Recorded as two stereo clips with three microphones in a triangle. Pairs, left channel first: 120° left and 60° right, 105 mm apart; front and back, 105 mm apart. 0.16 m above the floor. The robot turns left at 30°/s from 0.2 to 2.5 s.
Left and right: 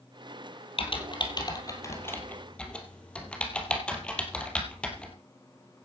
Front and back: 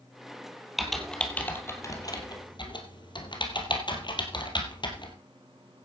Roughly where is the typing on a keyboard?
Left.